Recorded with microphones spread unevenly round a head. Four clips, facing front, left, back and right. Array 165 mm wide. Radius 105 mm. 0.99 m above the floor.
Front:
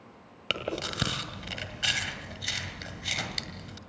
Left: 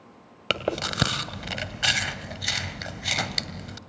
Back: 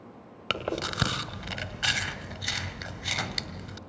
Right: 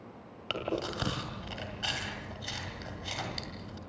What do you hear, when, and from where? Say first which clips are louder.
0.5 s chewing: left 6 dB, back 2 dB; 100° left, 2 m